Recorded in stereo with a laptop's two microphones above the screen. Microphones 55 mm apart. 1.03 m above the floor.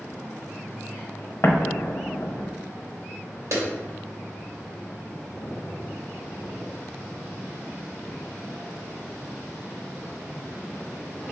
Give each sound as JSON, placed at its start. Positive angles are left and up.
{"t": 1.4, "sound": "an explosion", "side_deg": 45, "distance_m": 0.7}
{"t": 3.5, "sound": "a clap", "side_deg": -60, "distance_m": 2.0}